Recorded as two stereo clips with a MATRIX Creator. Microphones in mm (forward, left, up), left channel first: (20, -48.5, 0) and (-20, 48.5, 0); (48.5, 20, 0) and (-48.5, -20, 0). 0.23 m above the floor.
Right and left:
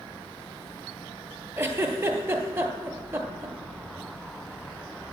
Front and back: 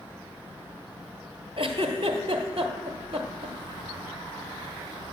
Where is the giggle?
Straight behind, 1.0 m.